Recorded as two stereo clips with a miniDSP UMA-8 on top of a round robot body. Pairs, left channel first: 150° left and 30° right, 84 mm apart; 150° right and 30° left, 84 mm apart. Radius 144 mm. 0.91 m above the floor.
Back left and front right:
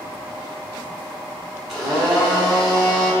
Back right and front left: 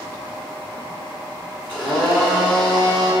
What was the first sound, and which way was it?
A blender, 115° right.